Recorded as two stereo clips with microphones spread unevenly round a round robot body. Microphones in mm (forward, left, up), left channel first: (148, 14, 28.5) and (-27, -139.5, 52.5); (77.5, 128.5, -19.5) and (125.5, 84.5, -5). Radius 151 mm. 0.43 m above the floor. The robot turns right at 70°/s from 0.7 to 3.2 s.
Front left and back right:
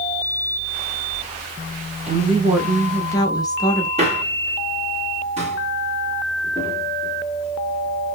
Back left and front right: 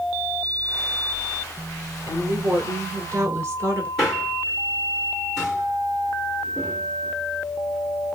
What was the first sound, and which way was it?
A woman speaking, 95° right.